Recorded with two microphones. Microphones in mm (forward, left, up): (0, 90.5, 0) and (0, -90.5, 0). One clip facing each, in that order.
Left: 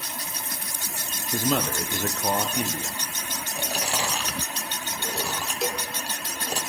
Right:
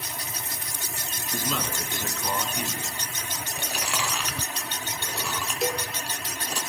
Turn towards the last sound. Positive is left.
turn(degrees=0)  # may be behind; listen again after turning